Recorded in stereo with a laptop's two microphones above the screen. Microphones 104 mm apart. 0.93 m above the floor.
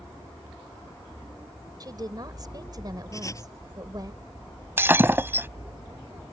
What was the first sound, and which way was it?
A woman speaking, 40° right (ahead or behind).